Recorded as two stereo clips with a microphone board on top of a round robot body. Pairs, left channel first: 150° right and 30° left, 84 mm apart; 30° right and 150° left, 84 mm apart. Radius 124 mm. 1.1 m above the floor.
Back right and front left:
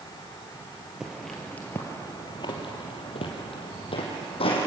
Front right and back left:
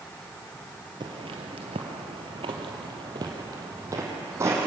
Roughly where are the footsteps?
Behind left.